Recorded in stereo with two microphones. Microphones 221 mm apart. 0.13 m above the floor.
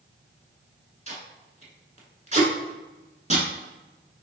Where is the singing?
I don't hear singing.